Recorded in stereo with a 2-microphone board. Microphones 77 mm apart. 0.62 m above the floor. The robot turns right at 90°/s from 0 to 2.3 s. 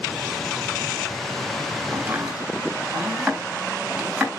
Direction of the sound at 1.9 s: 40° right (ahead or behind).